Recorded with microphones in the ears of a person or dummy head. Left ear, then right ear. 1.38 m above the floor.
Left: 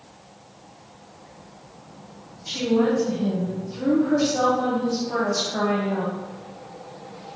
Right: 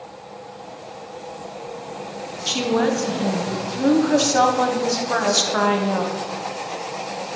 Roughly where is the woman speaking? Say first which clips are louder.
Right 2 dB; right.